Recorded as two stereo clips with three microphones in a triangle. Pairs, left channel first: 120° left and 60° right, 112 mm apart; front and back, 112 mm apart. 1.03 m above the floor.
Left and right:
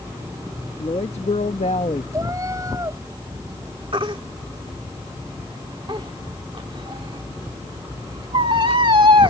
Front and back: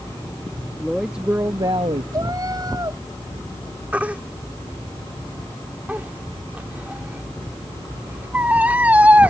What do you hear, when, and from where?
0.8 s a woman speaking: 85° left; by 2.0 s 155° left
2.1 s a cat meowing: 125° right
3.9 s a baby crying: 105° right